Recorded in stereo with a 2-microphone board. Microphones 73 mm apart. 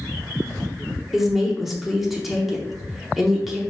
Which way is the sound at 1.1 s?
Centre (ahead or behind).